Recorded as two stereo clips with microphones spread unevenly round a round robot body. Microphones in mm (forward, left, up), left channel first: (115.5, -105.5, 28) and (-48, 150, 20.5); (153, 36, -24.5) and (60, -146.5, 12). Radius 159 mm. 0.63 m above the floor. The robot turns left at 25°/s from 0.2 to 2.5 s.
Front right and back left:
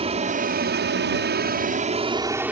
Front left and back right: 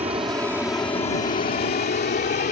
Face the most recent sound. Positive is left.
turn(degrees=40)